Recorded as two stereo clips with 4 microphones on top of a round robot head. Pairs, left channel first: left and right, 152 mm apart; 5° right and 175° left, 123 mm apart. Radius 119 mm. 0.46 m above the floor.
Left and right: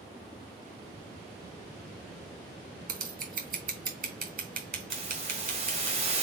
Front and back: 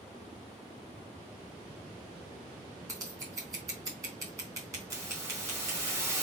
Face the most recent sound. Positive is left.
turn(degrees=-125)